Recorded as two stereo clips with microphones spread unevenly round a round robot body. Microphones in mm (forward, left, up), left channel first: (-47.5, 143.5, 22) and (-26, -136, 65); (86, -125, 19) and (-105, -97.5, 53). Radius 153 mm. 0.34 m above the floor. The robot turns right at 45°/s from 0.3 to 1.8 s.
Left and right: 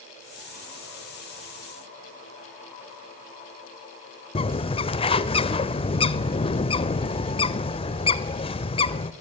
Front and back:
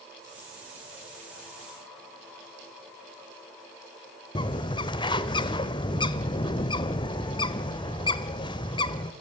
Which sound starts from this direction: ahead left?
A bird, at 4.3 s.